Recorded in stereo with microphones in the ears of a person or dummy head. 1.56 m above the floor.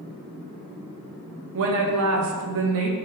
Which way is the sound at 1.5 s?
75° right (ahead or behind).